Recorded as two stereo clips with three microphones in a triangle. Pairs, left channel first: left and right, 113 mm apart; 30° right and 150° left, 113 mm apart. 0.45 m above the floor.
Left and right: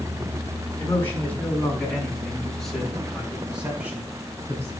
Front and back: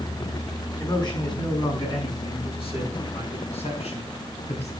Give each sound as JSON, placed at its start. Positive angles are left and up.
{"t": 0.8, "sound": "a man speaking", "azimuth_deg": 20, "distance_m": 6.0}